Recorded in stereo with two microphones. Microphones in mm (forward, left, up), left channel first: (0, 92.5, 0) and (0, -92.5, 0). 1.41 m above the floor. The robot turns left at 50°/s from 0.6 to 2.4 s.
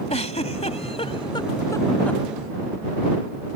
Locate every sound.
0.1 s a giggle: 35° left (ahead or behind); by 2.2 s 5° left (ahead or behind)